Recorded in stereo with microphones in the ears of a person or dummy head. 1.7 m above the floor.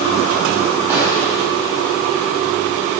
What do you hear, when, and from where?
0.9 s an explosion: 5° right (ahead or behind), 2.5 m